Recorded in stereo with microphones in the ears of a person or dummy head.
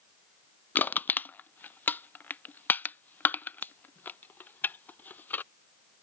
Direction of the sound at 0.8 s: 10° left (ahead or behind).